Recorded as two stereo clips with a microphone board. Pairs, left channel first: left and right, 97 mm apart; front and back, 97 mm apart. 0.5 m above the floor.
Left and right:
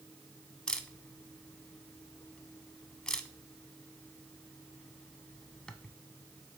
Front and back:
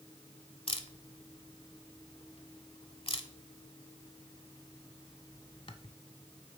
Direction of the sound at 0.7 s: 10° left.